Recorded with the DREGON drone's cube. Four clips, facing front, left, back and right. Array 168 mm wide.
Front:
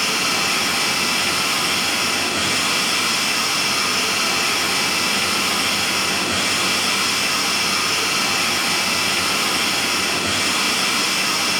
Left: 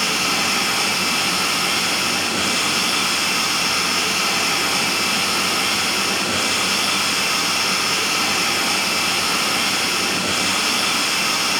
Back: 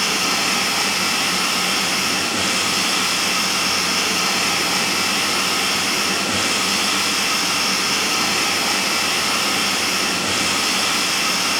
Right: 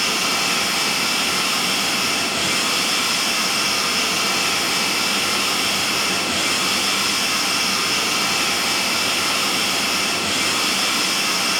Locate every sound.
0.0 s running water: 135° left, 5.5 m